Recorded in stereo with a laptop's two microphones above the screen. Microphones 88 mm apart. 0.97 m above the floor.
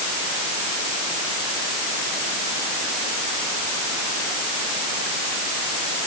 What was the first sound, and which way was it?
Only background noise.